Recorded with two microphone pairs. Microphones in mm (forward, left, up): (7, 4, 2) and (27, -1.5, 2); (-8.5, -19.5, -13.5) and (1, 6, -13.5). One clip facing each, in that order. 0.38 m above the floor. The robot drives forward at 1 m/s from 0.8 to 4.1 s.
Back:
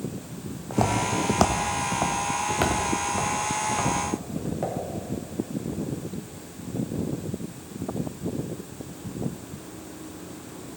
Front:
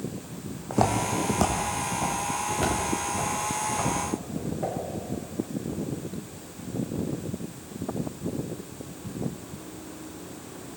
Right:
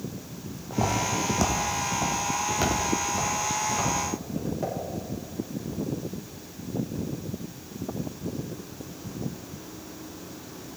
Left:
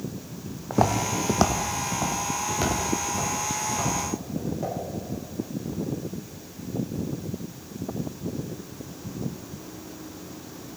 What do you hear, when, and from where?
0.7 s footsteps: 60° left, 1.3 m; by 4.8 s 175° right, 5.5 m